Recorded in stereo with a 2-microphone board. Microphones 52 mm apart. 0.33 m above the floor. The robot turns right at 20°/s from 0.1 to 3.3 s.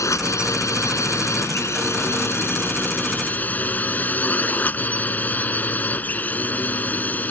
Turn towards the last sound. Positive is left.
turn(degrees=145)